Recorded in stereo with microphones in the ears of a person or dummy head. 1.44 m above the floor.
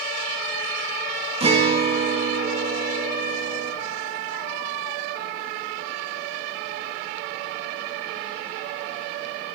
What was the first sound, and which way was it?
A guitar, 35° right (ahead or behind).